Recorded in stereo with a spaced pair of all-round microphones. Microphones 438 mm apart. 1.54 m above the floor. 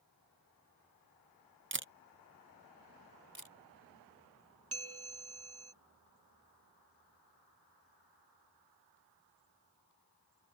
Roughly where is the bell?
Right.